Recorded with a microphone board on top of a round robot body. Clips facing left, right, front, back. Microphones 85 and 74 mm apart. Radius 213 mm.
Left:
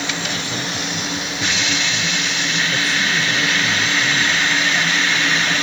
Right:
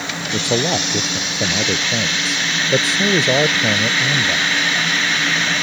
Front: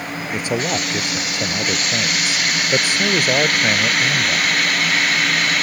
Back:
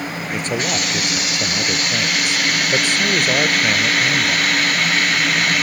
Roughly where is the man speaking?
Right.